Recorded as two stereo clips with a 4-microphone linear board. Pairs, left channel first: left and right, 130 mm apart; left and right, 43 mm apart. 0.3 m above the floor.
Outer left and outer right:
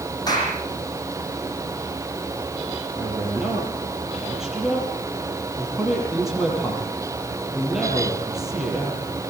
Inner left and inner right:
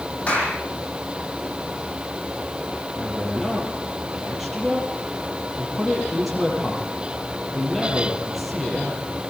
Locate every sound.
0.3 s a clap: 30° left (ahead or behind), 9.5 m
3.0 s a man speaking: centre (ahead or behind), 7.5 m